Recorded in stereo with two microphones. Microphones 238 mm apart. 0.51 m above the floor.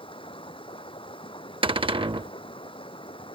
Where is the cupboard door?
20° right (ahead or behind).